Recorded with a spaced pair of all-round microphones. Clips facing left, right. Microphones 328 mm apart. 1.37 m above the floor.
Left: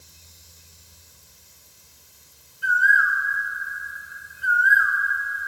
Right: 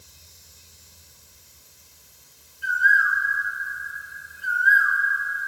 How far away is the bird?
About 0.6 m.